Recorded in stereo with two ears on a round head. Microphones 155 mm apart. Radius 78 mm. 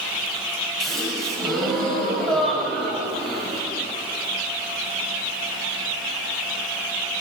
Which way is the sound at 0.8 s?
Centre (ahead or behind).